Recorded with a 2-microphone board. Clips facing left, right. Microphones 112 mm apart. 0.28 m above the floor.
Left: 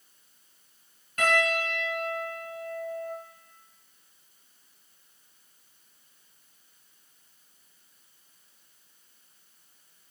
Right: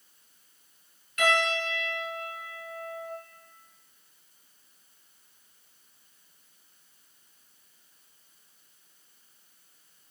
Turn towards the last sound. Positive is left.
turn(degrees=35)  # may be behind; listen again after turning